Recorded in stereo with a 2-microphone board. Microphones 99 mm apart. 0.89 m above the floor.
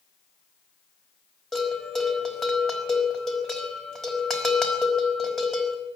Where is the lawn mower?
No lawn mower in this recording.